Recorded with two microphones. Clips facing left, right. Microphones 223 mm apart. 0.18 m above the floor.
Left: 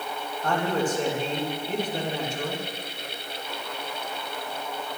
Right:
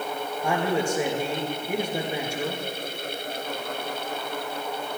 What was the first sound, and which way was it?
A man speaking, 10° right (ahead or behind).